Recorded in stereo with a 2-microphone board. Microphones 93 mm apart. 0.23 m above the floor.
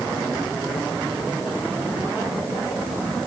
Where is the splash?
No splash in this recording.